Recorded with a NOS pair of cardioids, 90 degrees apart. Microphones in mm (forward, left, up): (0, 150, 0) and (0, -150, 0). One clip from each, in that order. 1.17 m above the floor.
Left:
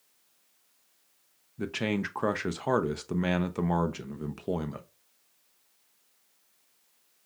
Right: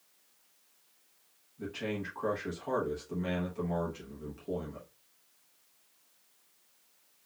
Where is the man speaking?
65° left, 0.6 m.